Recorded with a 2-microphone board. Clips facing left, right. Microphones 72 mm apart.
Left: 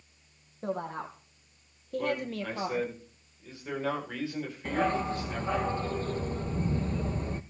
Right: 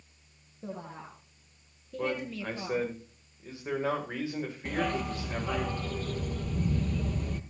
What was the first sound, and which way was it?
A woman speaking, 60° left (ahead or behind).